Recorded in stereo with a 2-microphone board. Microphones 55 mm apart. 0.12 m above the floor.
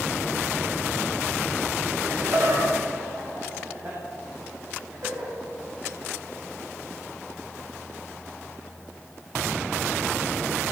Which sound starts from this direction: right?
Laughter, at 2.0 s.